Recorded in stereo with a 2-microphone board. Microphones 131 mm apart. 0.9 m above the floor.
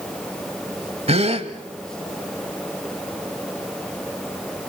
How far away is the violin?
I don't hear a violin.